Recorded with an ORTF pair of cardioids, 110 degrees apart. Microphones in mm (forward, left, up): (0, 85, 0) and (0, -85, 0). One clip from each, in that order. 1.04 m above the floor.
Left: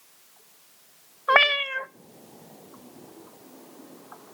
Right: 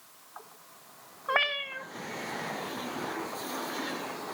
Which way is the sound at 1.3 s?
35° left.